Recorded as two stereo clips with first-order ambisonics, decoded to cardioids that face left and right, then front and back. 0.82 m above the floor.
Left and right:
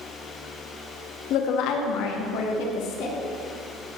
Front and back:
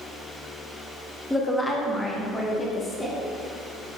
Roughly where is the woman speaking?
Left.